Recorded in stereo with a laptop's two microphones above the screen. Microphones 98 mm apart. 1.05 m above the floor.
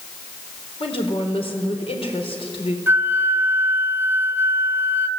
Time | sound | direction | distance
0.8 | a woman speaking | 70° left (ahead or behind) | 4.5 m
2.9 | a flute | 20° right (ahead or behind) | 1.3 m